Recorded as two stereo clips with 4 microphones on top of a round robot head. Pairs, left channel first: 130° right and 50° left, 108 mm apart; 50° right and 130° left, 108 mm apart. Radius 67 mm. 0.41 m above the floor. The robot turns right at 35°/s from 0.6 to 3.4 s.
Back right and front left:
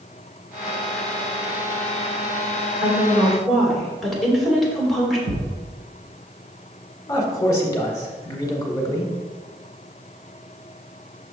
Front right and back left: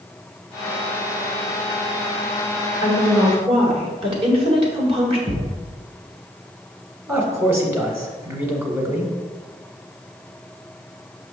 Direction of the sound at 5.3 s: 70° left.